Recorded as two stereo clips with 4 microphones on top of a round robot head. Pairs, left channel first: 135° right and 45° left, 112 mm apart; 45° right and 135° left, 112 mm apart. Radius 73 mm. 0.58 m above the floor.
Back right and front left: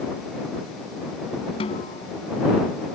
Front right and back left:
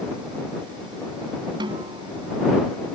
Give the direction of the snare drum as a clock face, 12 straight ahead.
6 o'clock.